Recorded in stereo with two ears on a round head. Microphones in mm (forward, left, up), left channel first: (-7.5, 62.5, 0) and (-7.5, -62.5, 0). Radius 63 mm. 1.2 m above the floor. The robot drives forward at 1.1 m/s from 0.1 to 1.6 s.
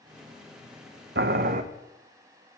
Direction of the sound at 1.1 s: 80° right.